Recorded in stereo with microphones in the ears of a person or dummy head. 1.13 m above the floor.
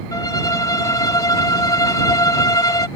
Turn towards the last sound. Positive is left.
turn(degrees=15)  # may be behind; listen again after turning